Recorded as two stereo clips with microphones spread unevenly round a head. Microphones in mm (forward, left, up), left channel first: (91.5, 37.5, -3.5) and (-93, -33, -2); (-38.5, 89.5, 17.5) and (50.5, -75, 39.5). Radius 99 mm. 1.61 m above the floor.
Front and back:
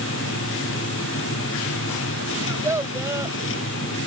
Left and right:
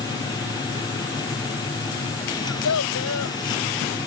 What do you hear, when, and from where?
0.0 s a machine running: 50° left
2.4 s a child speaking: 125° left